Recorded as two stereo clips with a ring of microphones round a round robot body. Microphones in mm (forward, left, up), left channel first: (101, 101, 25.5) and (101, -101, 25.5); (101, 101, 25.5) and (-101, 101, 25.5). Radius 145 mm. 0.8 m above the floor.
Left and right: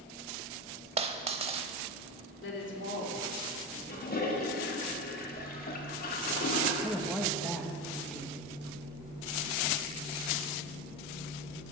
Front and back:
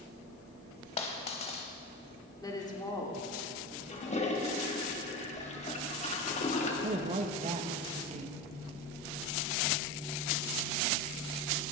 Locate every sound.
1.0 s a dropped coin: 50° right, 0.7 m
2.4 s a woman speaking: 70° left, 2.5 m
3.9 s a toilet flushing: 55° left, 1.9 m
6.8 s a woman speaking: straight behind, 1.0 m